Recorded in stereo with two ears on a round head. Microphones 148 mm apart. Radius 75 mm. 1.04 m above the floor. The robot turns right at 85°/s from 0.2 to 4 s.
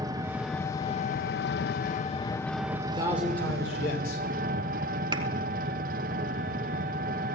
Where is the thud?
25° right (ahead or behind), 1.2 m.